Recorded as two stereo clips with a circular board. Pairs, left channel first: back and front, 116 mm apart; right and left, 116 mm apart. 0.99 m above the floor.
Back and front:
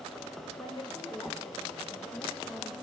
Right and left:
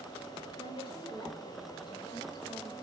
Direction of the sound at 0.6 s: 135° right.